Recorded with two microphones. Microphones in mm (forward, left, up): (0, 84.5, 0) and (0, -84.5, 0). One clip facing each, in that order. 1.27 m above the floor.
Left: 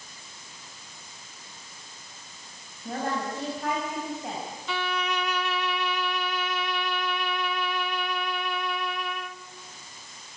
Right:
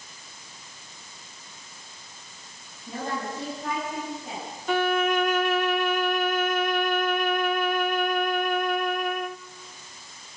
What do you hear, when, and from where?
2.9 s a woman speaking: 70° left (ahead or behind), 8 m
4.7 s a violin: 50° right (ahead or behind), 0.6 m